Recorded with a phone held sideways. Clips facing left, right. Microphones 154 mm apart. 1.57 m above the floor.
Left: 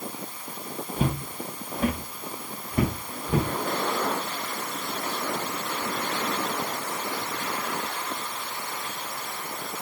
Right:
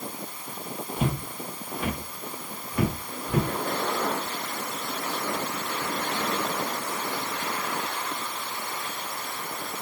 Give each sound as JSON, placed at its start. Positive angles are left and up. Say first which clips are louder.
{"t": 1.0, "sound": "footsteps", "louder": "left 1 dB", "side_deg": 40, "distance_m": 2.5}